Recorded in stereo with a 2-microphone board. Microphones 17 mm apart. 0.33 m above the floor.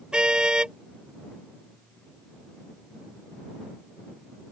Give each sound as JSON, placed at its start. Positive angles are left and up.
{"t": 0.1, "sound": "a car horn", "side_deg": -60}